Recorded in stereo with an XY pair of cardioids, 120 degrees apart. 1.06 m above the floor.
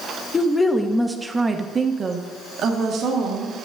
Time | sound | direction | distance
0.3 | a woman speaking | 25° left | 1.1 m